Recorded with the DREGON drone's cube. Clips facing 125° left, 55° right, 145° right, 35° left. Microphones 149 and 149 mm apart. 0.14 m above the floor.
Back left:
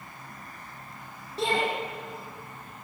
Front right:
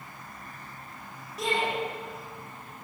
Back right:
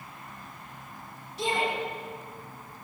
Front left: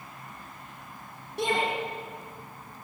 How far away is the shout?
About 8 m.